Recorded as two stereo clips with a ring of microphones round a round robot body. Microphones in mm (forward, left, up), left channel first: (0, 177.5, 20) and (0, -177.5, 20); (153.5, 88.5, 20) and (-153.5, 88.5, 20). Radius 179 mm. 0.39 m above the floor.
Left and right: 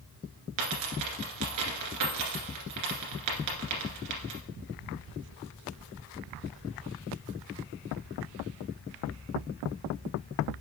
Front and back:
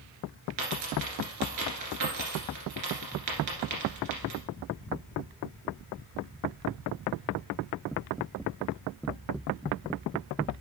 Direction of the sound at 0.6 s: 135° right.